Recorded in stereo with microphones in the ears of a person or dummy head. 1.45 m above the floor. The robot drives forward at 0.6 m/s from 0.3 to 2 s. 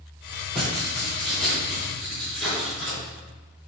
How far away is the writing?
About 3.5 m.